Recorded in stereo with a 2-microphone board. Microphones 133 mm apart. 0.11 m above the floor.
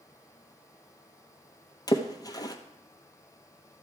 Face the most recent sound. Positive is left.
turn(degrees=30)  # may be behind; listen again after turning